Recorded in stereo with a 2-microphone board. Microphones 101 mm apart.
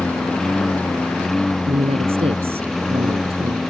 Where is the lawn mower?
5° left (ahead or behind); by 3.7 s centre (ahead or behind).